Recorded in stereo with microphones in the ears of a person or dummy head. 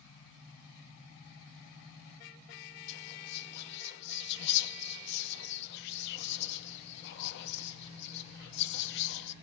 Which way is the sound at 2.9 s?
60° left (ahead or behind).